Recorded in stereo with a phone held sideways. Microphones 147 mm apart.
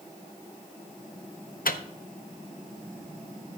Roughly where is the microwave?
Left.